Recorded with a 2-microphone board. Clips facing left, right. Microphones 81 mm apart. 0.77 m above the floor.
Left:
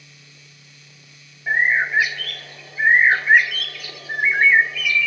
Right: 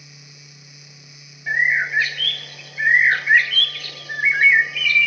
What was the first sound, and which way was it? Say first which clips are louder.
A bird: left 1 dB; 10° left (ahead or behind).